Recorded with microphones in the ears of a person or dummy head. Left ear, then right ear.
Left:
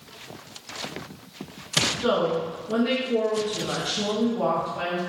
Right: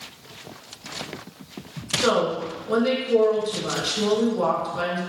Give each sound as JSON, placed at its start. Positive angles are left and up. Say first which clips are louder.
{"t": 2.0, "sound": "a woman speaking", "louder": "right 2 dB", "side_deg": -80, "distance_m": 1.3}